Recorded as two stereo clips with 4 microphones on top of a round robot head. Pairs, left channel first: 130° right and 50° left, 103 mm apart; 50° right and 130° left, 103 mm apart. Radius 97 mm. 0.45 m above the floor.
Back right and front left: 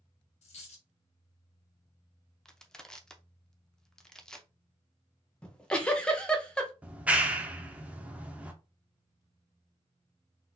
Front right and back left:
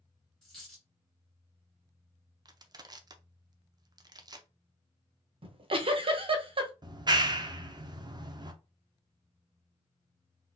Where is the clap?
125° left, 0.8 m.